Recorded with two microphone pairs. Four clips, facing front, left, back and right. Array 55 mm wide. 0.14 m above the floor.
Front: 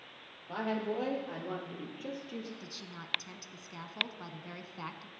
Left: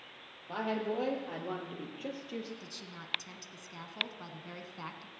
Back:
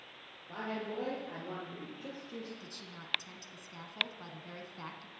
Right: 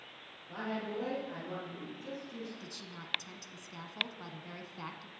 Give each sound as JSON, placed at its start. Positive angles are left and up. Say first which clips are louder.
{"t": 0.5, "sound": "a woman speaking", "louder": "left 4 dB, front 5 dB", "azimuth_deg": 55, "distance_m": 4.0}
{"t": 2.6, "sound": "a woman speaking", "louder": "even, front 2 dB", "azimuth_deg": 15, "distance_m": 1.0}